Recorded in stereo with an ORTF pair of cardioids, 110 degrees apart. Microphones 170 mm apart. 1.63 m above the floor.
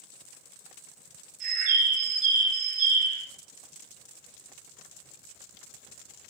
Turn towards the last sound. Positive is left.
turn(degrees=-50)